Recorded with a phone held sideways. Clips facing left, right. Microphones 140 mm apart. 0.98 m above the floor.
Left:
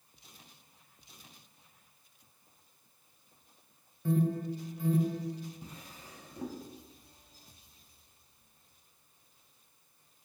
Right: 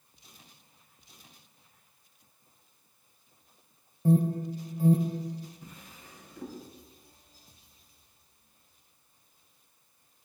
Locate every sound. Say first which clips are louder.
4.0 s an alarm: right 5 dB; 30° right (ahead or behind), 1.1 m
5.6 s a drawer: left 1 dB; 35° left (ahead or behind), 3 m